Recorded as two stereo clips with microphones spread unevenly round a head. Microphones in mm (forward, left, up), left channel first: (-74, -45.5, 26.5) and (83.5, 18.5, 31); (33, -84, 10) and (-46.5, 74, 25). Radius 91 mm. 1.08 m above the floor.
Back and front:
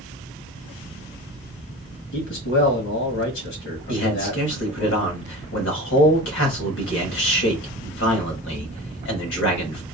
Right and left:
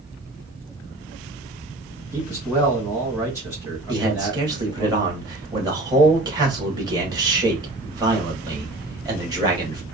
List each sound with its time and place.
2.1 s a man speaking: 165° right, 1.4 m
3.9 s a man speaking: 175° right, 1.5 m